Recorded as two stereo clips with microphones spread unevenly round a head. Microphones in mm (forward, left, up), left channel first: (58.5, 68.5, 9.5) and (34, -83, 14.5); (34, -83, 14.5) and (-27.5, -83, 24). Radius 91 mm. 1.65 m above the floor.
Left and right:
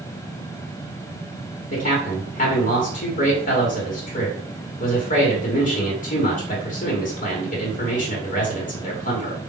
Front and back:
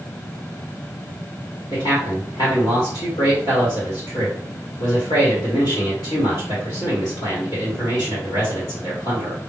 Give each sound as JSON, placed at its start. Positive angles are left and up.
{"t": 1.7, "sound": "a man speaking", "azimuth_deg": 45, "distance_m": 1.3}